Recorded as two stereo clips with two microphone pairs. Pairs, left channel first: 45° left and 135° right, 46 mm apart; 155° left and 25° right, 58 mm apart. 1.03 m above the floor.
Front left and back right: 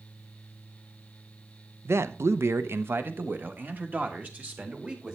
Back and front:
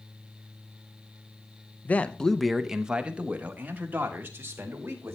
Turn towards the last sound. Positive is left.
turn(degrees=-75)